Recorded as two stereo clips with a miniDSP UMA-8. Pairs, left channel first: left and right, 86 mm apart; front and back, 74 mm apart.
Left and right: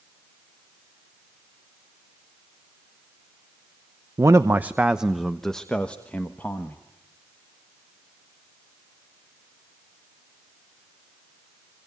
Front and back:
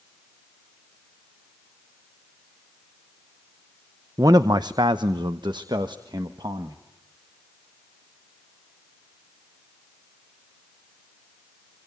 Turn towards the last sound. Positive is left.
turn(degrees=160)